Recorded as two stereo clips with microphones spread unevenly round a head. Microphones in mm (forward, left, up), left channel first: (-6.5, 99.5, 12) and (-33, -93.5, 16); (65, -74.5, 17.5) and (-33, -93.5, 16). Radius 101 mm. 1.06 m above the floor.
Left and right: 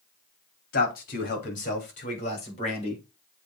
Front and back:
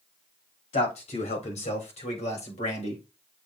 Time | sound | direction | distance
0.7 | a man speaking | 35° left | 3 m